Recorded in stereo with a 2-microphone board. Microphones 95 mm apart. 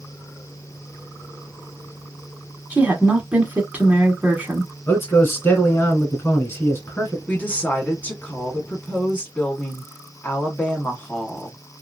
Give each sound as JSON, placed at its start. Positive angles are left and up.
{"t": 2.7, "sound": "a woman speaking", "side_deg": -15, "distance_m": 1.3}
{"t": 4.9, "sound": "a man speaking", "side_deg": 25, "distance_m": 1.5}
{"t": 7.3, "sound": "a woman speaking", "side_deg": 20, "distance_m": 1.1}